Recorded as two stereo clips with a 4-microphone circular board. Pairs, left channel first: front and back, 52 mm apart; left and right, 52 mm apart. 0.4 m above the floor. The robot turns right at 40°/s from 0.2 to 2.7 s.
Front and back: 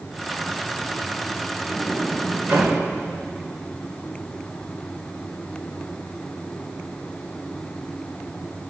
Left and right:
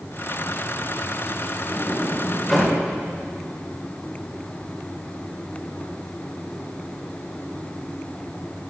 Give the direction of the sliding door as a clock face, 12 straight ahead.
7 o'clock.